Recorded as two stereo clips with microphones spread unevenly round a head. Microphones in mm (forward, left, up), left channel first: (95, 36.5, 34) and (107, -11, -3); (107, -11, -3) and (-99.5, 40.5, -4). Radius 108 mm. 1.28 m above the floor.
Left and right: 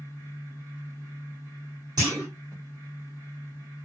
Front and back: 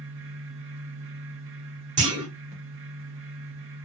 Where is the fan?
155° right, 0.8 m.